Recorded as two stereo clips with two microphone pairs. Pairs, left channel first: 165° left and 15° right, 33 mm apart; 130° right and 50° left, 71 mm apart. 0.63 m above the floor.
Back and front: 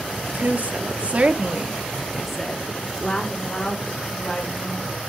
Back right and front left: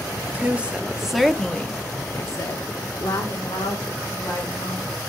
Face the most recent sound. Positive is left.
turn(degrees=-155)